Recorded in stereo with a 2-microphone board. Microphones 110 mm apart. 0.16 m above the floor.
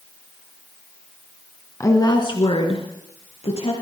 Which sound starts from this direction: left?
A woman speaking, at 1.8 s.